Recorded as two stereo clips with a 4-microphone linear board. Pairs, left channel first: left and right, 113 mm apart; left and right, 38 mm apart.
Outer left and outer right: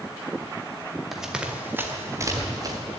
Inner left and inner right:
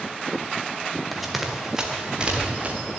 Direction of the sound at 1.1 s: Centre (ahead or behind).